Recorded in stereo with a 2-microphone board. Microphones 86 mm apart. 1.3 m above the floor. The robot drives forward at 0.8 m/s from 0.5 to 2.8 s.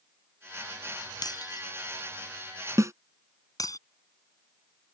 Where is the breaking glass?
50° left (ahead or behind); by 3.8 s 45° left (ahead or behind).